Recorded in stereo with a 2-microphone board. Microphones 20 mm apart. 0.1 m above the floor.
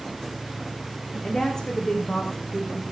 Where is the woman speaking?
35° left (ahead or behind), 5.5 m.